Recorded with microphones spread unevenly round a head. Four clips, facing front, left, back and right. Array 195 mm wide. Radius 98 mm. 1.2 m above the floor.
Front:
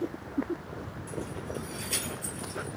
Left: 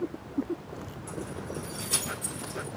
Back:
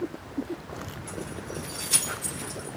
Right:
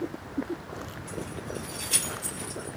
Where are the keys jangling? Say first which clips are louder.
Even, front 1 dB; 75° left, 3 m; by 2.7 s 80° left, 4.5 m.